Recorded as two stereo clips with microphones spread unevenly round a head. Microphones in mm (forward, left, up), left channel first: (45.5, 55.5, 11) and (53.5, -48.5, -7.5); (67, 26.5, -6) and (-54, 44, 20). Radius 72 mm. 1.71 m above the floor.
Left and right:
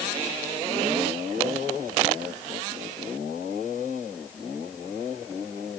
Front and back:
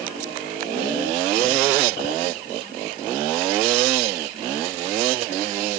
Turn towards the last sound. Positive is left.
No sound to turn to.